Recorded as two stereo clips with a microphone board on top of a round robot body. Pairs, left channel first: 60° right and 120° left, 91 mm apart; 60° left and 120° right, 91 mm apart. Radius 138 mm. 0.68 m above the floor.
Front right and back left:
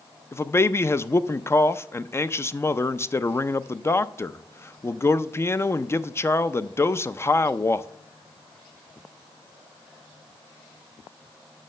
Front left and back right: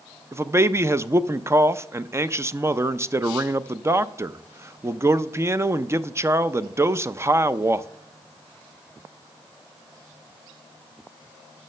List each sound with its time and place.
0.3 s a man speaking: 90° right, 0.5 m